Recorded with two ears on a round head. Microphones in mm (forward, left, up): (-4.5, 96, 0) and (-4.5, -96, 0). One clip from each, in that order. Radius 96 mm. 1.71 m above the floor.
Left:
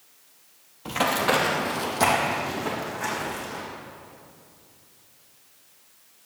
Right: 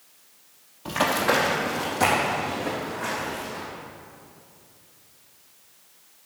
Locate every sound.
0.8 s running footsteps: 5° left (ahead or behind), 2.0 m; by 3.6 s 35° left (ahead or behind), 5.5 m